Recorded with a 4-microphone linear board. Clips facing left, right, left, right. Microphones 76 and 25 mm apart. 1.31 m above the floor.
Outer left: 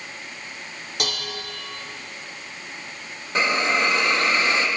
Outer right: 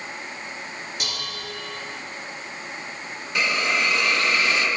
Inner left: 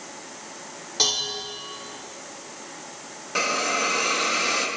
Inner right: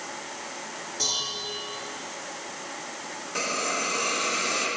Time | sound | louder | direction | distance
1.0 | dishes clattering | outer left 3 dB, inner left 5 dB | 80° left | 2.5 m
3.4 | a hiss | outer left 2 dB, inner left 5 dB | 35° left (ahead or behind) | 1.4 m